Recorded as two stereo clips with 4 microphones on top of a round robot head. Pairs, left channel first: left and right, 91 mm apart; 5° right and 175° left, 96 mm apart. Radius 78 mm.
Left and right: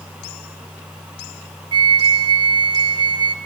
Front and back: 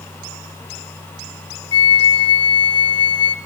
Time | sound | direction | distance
1.7 | a flute | 50° right | 0.6 m